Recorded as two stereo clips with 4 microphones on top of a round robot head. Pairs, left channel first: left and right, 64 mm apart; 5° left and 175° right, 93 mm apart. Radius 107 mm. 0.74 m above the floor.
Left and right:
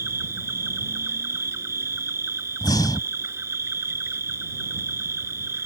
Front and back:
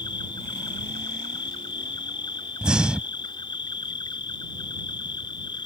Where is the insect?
45° right.